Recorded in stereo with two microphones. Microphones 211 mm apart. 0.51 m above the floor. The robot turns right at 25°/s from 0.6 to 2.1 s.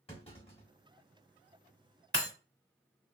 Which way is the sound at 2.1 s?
55° right (ahead or behind).